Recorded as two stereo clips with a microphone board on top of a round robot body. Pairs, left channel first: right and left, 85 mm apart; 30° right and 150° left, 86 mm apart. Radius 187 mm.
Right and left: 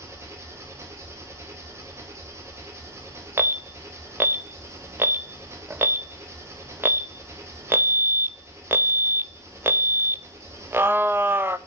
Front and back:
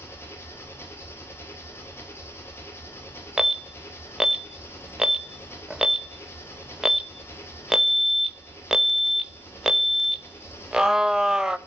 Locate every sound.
0.0 s an engine running: 30° left, 1.7 m
3.4 s an alarm: 75° left, 0.7 m